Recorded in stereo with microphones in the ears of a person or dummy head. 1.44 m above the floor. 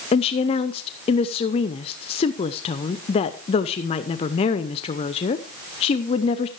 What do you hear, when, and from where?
0.1 s a woman speaking: 30° left (ahead or behind), 0.6 m